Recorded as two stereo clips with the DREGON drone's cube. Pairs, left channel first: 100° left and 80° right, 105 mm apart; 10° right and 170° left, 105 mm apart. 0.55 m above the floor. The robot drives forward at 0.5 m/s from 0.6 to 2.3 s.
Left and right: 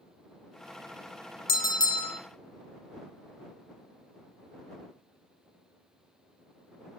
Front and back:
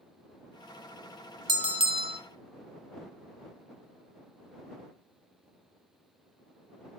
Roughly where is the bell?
Behind left.